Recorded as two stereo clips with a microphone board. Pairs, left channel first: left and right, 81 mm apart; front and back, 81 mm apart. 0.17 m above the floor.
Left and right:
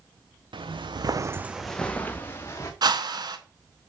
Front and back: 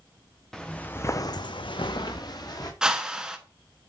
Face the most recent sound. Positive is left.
turn(degrees=-100)